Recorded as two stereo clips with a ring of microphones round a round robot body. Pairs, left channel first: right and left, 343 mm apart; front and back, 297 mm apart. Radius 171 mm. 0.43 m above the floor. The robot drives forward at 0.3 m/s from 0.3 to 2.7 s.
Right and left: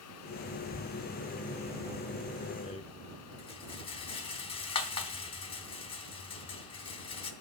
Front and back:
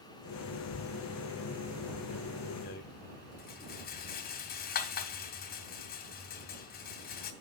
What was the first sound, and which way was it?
A rattle, 25° right.